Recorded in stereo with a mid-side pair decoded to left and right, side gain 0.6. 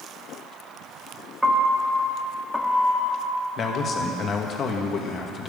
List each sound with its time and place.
1.4 s a piano: 5° right, 1.8 m
3.6 s a man speaking: 40° left, 2.5 m